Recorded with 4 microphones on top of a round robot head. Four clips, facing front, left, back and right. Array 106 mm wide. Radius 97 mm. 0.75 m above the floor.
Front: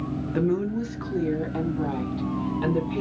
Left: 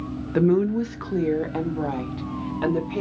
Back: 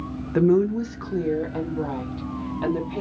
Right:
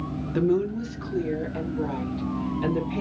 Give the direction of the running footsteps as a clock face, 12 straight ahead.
No running footsteps in this recording.